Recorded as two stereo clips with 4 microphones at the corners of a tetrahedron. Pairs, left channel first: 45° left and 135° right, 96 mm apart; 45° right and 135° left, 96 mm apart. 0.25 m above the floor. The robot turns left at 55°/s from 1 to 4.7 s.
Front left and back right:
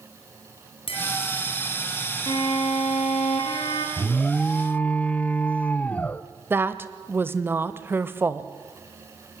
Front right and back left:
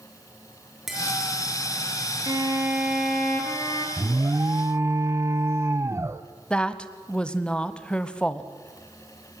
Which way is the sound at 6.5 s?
110° right.